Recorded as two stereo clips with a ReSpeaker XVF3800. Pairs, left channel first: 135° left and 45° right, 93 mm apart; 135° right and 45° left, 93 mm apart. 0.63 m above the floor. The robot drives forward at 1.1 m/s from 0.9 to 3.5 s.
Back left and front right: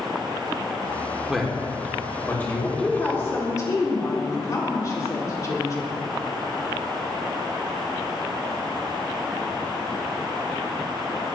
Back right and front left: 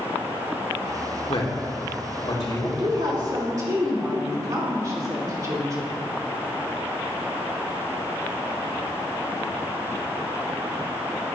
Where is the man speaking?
130° right, 1.2 m; by 2.7 s 160° right, 2.5 m.